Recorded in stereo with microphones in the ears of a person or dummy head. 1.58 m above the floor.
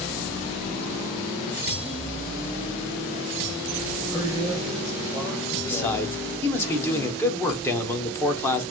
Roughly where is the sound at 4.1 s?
Left.